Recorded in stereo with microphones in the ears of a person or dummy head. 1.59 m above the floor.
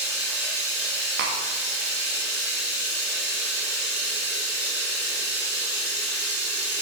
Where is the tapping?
45° right (ahead or behind), 0.8 m.